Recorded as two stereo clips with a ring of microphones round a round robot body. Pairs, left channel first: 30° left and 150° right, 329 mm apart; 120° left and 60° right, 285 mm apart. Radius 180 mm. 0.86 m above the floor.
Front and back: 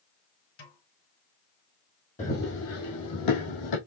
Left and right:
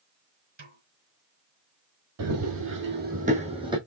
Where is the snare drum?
Straight ahead, 3.5 m.